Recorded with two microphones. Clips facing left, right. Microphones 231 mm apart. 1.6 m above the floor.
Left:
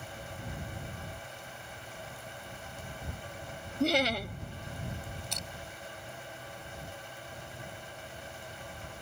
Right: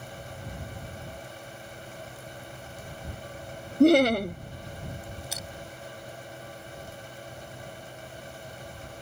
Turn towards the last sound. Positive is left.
turn(degrees=-5)  # may be behind; listen again after turning